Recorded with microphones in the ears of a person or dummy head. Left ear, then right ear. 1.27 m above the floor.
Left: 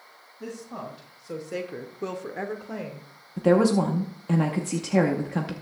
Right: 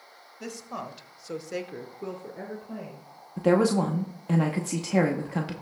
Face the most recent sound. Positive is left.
turn(degrees=-5)  # may be behind; listen again after turning